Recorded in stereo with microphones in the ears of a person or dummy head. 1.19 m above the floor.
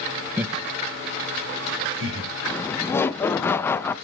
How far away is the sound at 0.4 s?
About 0.8 m.